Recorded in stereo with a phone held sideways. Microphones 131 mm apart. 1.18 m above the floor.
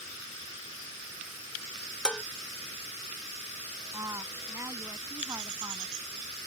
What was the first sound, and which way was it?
Dishes clattering, 5° left (ahead or behind).